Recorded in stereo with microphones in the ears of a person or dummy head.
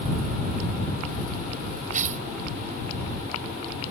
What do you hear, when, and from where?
1.9 s tearing paper: 40° right (ahead or behind)